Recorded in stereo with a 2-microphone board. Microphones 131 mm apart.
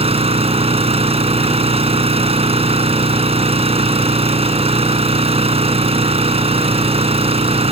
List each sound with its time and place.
0.0 s an engine running: 45° right (ahead or behind)